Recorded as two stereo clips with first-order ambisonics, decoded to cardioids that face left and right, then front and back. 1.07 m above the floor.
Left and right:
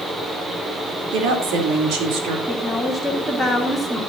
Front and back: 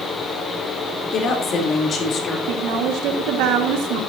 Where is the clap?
No clap in this recording.